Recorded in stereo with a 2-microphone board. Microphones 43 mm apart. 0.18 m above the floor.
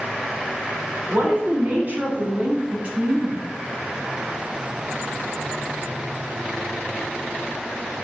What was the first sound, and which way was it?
A woman speaking, 40° right (ahead or behind).